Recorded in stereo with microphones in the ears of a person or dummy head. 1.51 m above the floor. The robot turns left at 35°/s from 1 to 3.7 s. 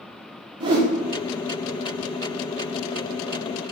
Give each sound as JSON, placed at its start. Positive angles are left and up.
{"t": 0.6, "sound": "a whoosh", "side_deg": -25, "distance_m": 0.6}